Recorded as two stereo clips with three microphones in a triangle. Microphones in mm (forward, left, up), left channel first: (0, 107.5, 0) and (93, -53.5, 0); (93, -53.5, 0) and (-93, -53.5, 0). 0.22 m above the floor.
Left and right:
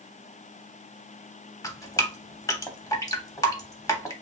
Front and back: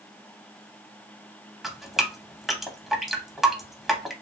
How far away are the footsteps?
I don't hear footsteps.